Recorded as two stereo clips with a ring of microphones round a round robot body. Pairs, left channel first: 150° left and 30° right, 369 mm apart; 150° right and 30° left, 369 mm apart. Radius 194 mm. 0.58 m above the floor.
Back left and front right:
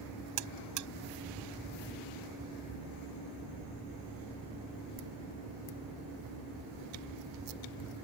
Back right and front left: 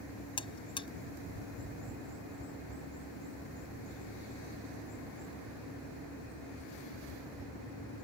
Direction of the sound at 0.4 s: 75° right.